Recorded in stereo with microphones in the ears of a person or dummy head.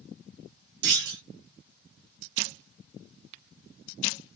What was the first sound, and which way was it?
A clunk, 50° right (ahead or behind).